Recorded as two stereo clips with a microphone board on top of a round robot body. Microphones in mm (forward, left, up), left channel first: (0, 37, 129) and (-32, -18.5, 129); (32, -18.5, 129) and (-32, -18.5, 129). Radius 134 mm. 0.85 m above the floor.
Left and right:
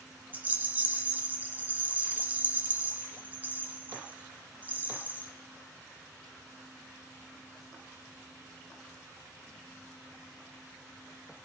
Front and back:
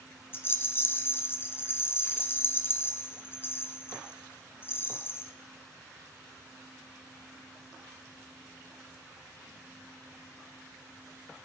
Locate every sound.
0.3 s a rattle: 55° right, 1.1 m